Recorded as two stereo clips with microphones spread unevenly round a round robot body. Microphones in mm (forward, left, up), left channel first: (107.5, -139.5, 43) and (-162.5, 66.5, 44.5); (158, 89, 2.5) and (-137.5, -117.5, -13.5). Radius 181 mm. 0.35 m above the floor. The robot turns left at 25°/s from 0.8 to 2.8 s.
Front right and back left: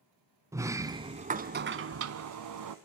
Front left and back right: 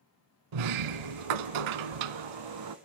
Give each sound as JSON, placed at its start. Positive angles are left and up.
{"t": 0.5, "sound": "a sliding door", "azimuth_deg": -135, "distance_m": 1.0}